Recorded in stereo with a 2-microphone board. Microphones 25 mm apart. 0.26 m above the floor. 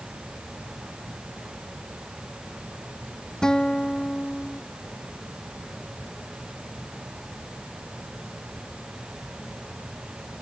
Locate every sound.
3.4 s a guitar: 30° left (ahead or behind)